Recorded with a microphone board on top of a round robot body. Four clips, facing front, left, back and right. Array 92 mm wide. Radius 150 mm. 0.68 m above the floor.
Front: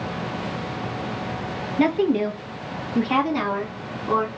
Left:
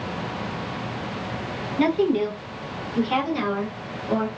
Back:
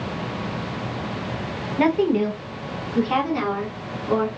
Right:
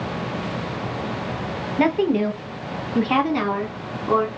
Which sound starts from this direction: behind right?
A woman speaking, at 1.8 s.